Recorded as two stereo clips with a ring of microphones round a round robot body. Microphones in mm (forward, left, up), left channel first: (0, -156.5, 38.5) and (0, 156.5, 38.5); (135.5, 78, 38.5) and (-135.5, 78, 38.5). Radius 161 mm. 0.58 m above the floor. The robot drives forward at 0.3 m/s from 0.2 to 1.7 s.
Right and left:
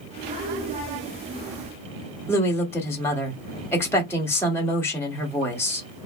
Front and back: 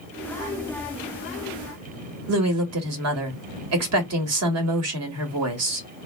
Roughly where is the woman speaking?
Behind.